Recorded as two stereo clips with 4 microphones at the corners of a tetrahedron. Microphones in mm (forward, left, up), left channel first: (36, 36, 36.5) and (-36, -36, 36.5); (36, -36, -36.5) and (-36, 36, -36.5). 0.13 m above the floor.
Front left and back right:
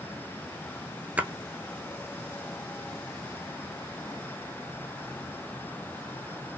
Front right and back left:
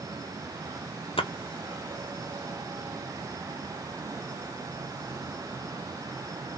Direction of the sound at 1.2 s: 60° right.